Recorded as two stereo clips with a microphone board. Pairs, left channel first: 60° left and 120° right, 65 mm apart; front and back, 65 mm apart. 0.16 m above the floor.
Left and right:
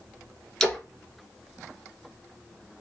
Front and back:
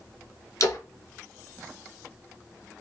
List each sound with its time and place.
0.6 s a splash: 20° right, 1.0 m